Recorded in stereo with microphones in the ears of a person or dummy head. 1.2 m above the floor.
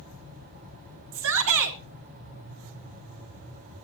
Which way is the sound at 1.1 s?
60° right (ahead or behind).